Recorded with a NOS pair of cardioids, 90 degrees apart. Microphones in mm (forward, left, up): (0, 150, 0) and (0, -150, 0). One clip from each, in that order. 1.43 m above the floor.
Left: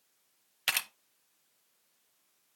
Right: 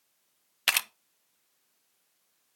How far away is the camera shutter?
About 0.7 m.